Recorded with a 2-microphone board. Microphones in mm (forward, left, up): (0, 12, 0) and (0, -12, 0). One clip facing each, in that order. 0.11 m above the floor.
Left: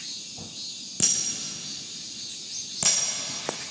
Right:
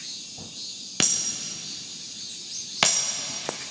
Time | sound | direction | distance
1.0 | breaking glass | 55° right (ahead or behind) | 3 m